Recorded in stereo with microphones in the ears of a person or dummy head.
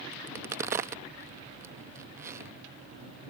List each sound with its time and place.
0.1 s a crack: 15° right (ahead or behind)